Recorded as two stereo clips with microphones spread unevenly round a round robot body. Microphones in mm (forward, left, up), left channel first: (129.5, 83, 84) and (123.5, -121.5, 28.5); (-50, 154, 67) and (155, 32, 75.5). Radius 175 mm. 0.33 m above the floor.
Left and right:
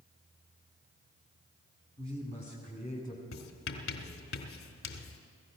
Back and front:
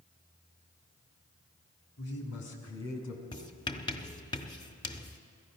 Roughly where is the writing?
Left.